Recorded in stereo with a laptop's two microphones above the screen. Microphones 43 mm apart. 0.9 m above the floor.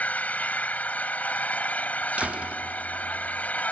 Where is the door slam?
35° right (ahead or behind).